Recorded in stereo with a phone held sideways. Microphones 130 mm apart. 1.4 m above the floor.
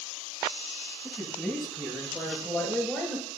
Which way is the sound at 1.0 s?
20° left (ahead or behind).